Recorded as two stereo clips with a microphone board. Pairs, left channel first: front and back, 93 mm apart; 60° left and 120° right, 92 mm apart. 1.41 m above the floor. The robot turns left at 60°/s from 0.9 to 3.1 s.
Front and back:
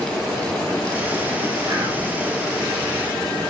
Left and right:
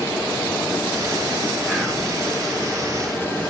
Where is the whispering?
150° left, 0.7 m; by 2.1 s 125° left, 0.7 m.